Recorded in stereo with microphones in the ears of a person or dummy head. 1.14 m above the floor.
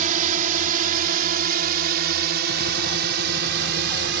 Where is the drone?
45° right (ahead or behind); by 4.2 s 65° right (ahead or behind).